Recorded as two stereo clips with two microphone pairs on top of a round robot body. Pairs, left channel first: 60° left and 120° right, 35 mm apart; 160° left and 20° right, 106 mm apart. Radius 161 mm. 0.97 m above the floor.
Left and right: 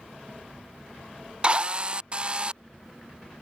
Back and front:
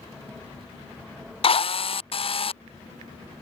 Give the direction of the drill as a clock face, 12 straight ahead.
6 o'clock.